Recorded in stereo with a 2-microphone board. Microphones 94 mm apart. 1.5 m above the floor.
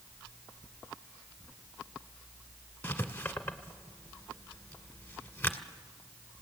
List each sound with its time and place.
2.8 s writing: 20° left (ahead or behind), 1.5 m